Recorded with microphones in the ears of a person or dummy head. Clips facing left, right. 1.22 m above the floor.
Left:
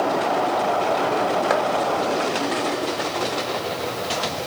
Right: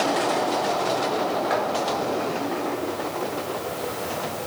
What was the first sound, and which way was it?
Chopping, 60° left (ahead or behind).